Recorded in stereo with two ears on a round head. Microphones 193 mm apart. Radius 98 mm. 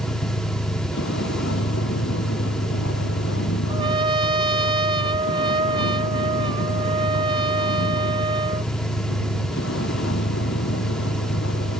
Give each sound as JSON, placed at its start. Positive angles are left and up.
{"t": 0.0, "sound": "a vehicle", "side_deg": 60}
{"t": 3.7, "sound": "a trumpet", "side_deg": -25}